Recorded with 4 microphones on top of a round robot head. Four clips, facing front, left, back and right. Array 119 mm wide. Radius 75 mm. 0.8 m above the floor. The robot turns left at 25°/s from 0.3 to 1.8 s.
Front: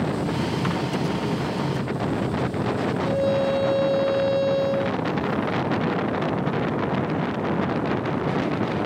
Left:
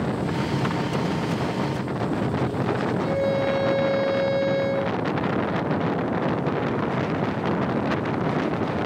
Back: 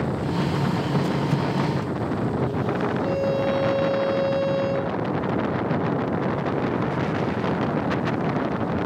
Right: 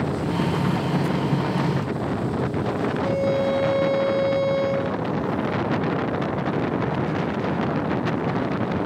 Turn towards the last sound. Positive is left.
turn(degrees=-110)